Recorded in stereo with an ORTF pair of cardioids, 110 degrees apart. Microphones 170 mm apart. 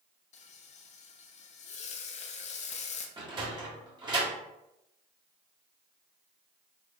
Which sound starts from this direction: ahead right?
A sliding door, at 3.2 s.